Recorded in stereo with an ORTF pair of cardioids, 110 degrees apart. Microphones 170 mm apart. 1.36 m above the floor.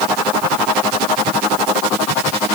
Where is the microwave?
I don't hear a microwave.